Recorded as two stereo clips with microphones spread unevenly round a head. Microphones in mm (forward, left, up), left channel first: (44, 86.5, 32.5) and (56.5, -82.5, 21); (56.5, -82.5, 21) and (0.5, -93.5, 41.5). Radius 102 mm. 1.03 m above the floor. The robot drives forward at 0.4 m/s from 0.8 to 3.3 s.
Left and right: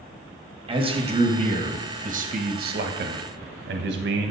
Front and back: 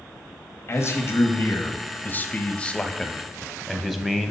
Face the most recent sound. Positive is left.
turn(degrees=-80)